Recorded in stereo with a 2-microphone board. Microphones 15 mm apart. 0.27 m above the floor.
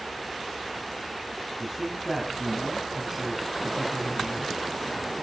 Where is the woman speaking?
20° right (ahead or behind), 2.5 m.